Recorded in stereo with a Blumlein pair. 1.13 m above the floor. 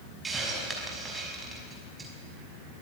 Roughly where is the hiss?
Ahead.